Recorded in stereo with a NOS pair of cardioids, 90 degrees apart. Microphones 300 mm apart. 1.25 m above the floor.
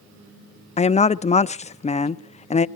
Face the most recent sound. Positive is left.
turn(degrees=25)